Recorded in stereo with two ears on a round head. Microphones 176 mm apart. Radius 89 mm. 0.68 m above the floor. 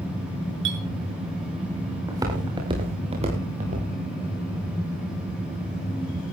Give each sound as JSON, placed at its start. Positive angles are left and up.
{"t": 0.7, "sound": "a clink", "side_deg": -70, "distance_m": 6.5}
{"t": 2.1, "sound": "footsteps", "side_deg": -15, "distance_m": 6.0}